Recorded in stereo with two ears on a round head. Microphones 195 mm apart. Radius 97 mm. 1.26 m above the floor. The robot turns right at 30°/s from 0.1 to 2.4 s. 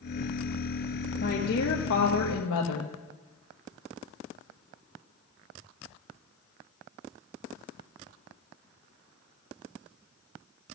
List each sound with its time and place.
1.2 s a woman speaking: 40° left, 1.2 m; by 2.9 s 75° left, 1.2 m